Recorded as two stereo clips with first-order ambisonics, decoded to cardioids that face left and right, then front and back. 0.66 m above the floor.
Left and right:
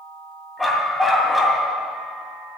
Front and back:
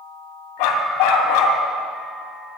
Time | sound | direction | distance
0.6 | a dog barking | straight ahead | 2 m